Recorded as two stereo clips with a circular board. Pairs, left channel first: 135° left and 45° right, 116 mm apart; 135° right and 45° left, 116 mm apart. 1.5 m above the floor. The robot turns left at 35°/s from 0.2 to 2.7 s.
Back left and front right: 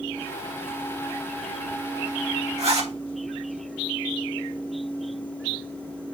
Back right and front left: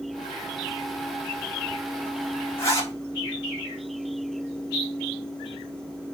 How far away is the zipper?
About 3.5 m.